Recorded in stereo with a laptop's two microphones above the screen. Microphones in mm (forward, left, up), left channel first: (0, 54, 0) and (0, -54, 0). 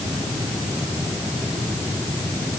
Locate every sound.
Only background noise.